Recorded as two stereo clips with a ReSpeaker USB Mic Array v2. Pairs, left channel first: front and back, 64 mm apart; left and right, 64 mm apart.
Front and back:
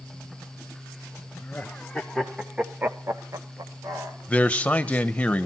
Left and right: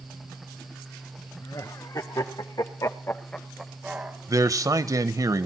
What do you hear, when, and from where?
1.4 s laughter: 75° left, 2.5 m; by 4.2 s 155° right, 1.9 m
4.3 s a man speaking: 70° right, 1.1 m